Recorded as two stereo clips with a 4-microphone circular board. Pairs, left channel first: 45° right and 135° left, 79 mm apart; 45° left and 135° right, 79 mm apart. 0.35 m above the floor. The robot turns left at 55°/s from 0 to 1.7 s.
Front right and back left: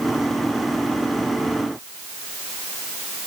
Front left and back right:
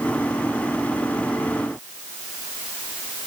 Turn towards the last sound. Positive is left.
No sound to turn to.